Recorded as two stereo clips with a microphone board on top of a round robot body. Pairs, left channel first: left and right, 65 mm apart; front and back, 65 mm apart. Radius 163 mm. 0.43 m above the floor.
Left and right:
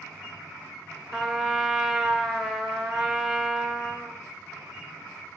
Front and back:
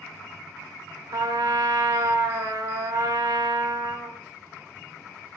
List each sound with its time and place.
1.1 s a trumpet: 175° left, 0.9 m